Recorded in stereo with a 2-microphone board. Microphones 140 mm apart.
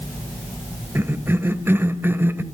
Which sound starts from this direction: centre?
A cough, at 0.9 s.